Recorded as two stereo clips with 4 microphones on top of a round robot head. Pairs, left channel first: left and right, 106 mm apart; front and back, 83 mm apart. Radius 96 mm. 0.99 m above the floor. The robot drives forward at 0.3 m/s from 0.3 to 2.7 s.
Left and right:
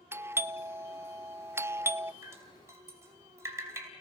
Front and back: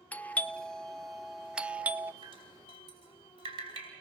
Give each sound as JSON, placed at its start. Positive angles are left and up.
{"t": 0.1, "sound": "a doorbell", "azimuth_deg": -50, "distance_m": 0.8}
{"t": 2.2, "sound": "dripping", "azimuth_deg": -155, "distance_m": 5.0}